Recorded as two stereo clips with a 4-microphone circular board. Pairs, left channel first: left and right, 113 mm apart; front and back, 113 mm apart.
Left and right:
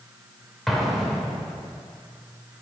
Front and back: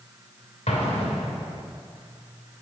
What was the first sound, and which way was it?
An explosion, straight ahead.